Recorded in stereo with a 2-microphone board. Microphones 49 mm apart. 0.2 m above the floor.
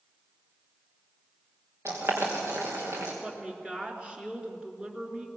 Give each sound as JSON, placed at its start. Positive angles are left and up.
{"t": 1.9, "sound": "boiling", "side_deg": -60, "distance_m": 5.0}
{"t": 3.2, "sound": "a woman speaking", "side_deg": -20, "distance_m": 3.0}